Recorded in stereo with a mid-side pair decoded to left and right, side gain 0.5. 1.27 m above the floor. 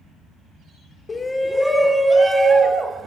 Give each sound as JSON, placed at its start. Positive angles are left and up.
{"t": 1.1, "sound": "a shout", "azimuth_deg": 35, "distance_m": 0.7}